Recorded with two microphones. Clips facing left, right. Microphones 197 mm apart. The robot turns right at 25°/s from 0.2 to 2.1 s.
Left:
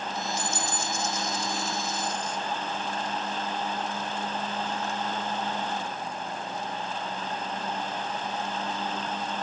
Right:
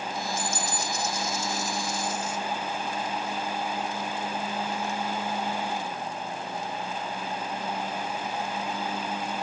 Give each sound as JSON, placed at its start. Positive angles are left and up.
{"t": 0.4, "sound": "a dropped coin", "azimuth_deg": -50, "distance_m": 2.5}